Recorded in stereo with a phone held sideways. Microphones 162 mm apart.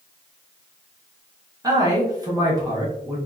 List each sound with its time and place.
1.6 s a man speaking: 25° right (ahead or behind), 0.8 m